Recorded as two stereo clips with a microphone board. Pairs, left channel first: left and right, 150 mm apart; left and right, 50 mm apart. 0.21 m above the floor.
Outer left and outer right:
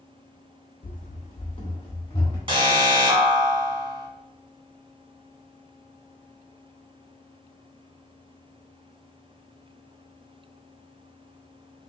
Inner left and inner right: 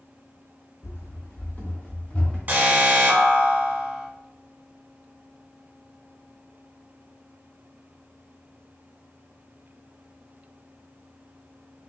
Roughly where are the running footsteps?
Left.